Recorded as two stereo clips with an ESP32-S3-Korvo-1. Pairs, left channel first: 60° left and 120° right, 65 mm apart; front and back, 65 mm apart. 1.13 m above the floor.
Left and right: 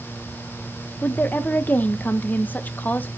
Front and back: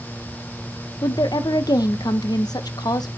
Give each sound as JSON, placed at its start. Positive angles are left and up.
{"t": 1.0, "sound": "a woman speaking", "azimuth_deg": 0, "distance_m": 0.6}